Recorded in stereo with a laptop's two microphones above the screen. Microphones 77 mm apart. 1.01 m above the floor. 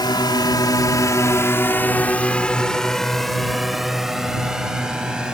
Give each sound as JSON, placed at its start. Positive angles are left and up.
{"t": 0.0, "sound": "a drone", "side_deg": 70}